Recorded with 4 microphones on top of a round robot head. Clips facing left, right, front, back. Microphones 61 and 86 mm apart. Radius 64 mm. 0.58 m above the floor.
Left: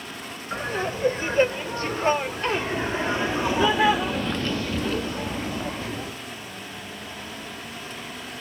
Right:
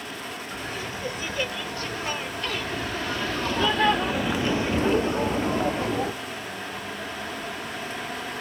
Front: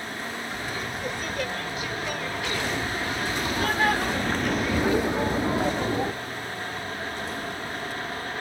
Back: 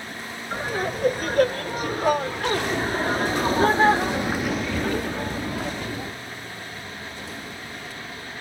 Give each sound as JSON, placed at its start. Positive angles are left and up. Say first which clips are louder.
{"t": 0.5, "sound": "laughter", "louder": "left 9 dB, back 5 dB", "azimuth_deg": 140}